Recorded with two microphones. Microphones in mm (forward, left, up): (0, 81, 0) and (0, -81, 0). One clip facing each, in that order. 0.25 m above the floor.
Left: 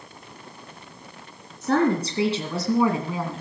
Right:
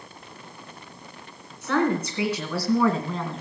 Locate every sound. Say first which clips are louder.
1.6 s a woman speaking: left 2 dB; 40° left (ahead or behind), 2.5 m; by 3.4 s centre (ahead or behind), 2 m